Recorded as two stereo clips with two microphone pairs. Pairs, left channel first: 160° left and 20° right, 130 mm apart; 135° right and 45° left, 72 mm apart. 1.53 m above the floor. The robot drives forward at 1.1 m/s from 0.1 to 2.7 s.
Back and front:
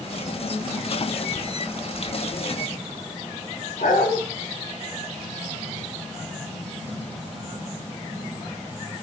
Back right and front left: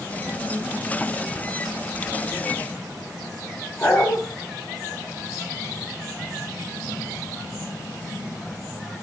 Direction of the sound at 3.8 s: 160° left.